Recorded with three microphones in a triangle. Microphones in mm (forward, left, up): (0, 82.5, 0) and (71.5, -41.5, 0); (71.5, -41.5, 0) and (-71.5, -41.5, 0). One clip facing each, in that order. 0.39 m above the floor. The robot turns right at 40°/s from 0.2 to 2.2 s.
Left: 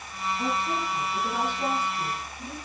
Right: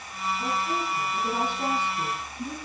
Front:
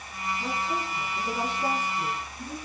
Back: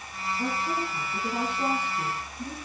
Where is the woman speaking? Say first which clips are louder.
Left 1 dB, back 2 dB; straight behind, 10 m; by 2.6 s 105° right, 10 m.